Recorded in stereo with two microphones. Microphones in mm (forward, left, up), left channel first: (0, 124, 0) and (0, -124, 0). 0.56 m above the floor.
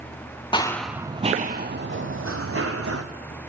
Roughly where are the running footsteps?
Centre.